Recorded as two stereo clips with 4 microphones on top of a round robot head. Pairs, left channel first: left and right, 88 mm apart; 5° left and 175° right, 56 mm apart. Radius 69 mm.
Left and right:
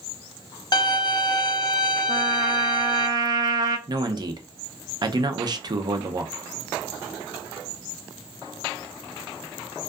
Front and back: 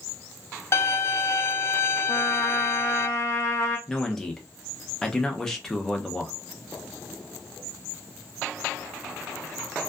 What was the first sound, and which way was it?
A violin, 45° left.